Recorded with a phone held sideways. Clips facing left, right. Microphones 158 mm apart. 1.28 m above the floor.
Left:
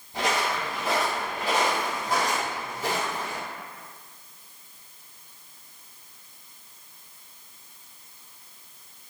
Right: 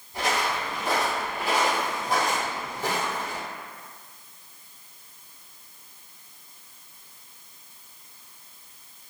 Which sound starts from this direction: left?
Footsteps, at 0.1 s.